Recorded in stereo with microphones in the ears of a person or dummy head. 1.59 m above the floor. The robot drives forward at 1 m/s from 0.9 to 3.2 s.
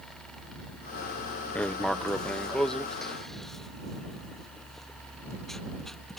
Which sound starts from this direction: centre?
Writing, at 1.6 s.